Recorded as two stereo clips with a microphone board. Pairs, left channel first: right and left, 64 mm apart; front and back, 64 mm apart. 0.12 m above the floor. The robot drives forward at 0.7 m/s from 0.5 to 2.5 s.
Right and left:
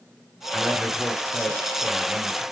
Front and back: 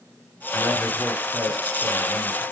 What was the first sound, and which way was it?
A man speaking, 10° right.